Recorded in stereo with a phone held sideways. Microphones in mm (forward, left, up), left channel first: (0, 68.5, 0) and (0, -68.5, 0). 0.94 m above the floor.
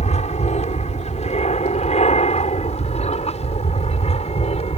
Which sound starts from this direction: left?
An aircraft, at 0.0 s.